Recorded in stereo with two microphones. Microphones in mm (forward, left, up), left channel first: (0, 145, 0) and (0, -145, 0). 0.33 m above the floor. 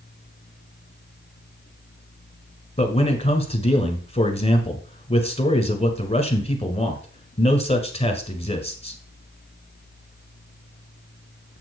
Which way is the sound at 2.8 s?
20° left (ahead or behind).